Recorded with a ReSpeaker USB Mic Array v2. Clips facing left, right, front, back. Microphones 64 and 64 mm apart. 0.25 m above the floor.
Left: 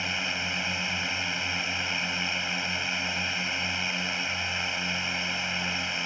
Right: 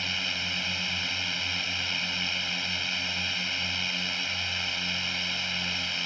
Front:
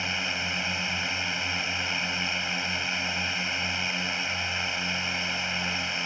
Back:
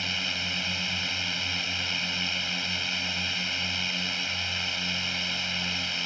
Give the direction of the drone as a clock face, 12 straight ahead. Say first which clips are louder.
Left 2 dB, front 2 dB; 11 o'clock.